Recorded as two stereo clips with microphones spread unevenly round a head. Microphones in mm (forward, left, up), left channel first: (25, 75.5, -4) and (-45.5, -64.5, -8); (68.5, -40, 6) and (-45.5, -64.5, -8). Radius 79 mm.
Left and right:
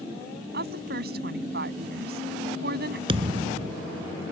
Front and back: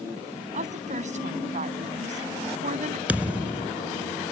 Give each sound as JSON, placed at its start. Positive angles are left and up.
{"t": 0.5, "sound": "a woman speaking", "azimuth_deg": -145}
{"t": 3.1, "sound": "a thud", "azimuth_deg": -85}